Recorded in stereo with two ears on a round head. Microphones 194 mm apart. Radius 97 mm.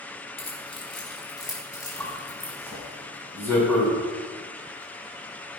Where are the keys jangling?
30° left (ahead or behind), 3.5 m; by 2.5 s 5° left (ahead or behind), 4.5 m.